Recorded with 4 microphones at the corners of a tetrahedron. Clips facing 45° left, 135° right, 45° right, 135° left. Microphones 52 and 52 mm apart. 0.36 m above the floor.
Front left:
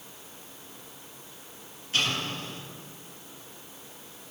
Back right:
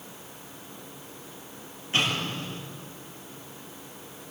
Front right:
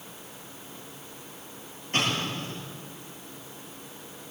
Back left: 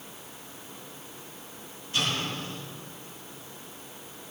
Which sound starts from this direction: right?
An explosion, at 1.9 s.